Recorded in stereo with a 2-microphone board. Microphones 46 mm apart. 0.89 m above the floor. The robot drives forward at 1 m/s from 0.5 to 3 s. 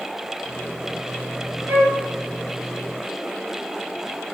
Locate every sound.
1.7 s a flute: 55° right (ahead or behind), 3.5 m; by 2.0 s 50° right (ahead or behind), 3.5 m